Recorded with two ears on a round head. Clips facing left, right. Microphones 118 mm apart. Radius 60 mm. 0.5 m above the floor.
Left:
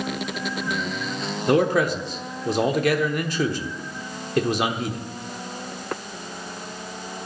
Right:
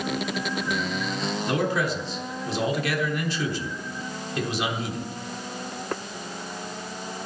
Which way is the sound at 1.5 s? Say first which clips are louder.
Left 7 dB; 40° left (ahead or behind).